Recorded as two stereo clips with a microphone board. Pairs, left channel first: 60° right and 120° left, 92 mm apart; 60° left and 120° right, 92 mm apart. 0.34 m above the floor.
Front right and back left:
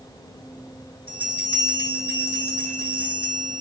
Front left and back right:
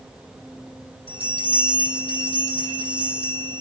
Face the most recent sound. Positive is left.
turn(degrees=50)